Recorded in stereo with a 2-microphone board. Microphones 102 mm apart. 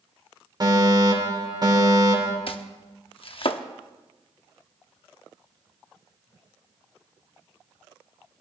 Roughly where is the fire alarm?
Right.